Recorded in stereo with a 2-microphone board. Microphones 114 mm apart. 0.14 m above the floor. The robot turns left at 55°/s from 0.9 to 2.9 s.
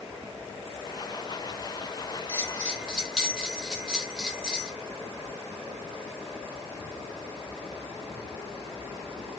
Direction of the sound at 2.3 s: 20° right (ahead or behind).